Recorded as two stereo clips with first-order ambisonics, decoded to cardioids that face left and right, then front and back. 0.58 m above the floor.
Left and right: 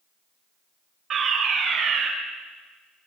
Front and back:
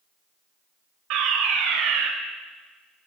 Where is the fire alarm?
150° right, 4.5 m.